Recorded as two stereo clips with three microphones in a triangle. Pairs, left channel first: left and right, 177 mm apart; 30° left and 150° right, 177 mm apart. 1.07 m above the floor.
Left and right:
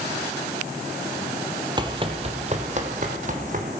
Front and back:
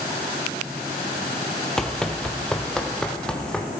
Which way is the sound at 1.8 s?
55° right.